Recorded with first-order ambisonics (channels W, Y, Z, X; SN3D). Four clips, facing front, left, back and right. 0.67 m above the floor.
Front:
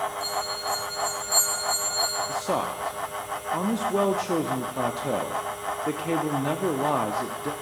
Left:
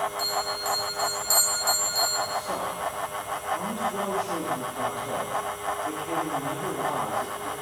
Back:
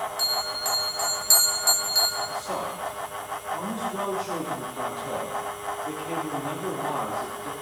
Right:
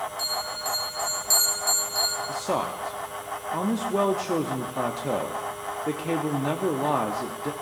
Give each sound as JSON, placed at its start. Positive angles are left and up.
{"t": 0.2, "sound": "a bell", "azimuth_deg": 180, "distance_m": 3.5}
{"t": 2.3, "sound": "a man speaking", "azimuth_deg": -45, "distance_m": 0.8}